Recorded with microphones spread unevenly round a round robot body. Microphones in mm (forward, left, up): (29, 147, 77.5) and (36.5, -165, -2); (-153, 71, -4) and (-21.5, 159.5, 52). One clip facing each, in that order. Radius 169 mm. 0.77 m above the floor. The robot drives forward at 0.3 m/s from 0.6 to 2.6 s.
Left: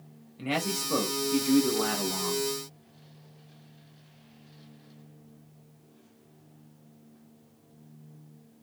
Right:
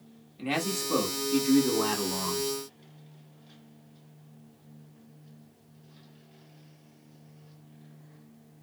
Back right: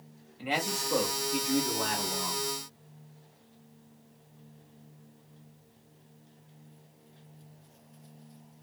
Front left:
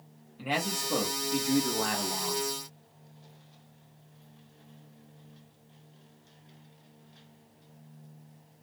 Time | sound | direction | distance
0.4 | a man speaking | 15° right | 1.2 m